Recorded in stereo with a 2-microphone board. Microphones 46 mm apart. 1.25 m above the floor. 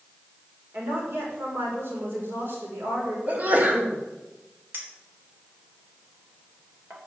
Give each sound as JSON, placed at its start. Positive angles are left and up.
{"t": 0.7, "sound": "a woman speaking", "side_deg": -50, "distance_m": 4.5}
{"t": 3.3, "sound": "a sneeze", "side_deg": -40, "distance_m": 2.5}
{"t": 4.7, "sound": "a clink", "side_deg": -50, "distance_m": 3.0}